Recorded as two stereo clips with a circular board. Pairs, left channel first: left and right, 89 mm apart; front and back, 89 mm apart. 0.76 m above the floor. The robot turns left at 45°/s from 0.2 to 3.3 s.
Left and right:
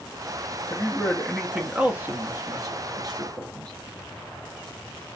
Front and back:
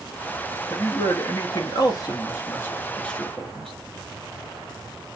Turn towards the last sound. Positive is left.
turn(degrees=-85)